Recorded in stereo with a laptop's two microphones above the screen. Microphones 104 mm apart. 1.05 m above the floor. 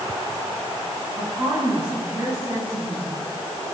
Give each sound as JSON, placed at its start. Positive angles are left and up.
{"t": 1.2, "sound": "a woman speaking", "side_deg": -25, "distance_m": 9.0}